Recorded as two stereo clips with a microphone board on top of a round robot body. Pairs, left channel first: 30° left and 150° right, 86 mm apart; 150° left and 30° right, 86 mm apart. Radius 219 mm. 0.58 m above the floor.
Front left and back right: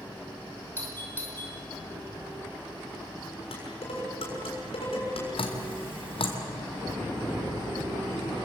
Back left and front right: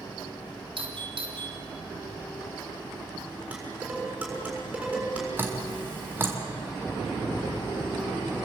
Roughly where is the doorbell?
Ahead right.